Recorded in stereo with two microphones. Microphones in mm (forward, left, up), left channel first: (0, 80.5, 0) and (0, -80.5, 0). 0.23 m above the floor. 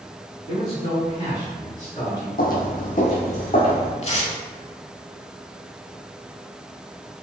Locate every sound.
0.5 s a man speaking: 35° left (ahead or behind), 1.6 m; by 2.3 s 25° left (ahead or behind), 2 m
2.4 s footsteps: 70° left (ahead or behind), 0.5 m; by 3.9 s 40° left (ahead or behind), 1.5 m
4.0 s tearing paper: 40° left (ahead or behind), 0.6 m